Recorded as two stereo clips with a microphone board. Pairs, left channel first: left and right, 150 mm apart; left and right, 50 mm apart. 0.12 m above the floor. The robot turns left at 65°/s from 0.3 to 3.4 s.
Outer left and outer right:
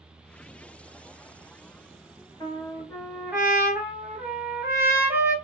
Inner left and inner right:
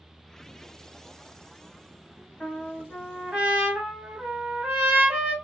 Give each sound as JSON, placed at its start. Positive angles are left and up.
{"t": 2.4, "sound": "a trumpet", "azimuth_deg": 40, "distance_m": 1.4}